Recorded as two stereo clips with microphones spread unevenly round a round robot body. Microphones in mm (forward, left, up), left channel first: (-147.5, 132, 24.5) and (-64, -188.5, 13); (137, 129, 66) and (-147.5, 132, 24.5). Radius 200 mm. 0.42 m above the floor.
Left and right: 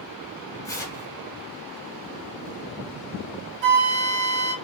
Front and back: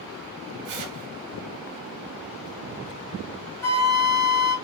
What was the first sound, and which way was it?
Tearing paper, 175° right.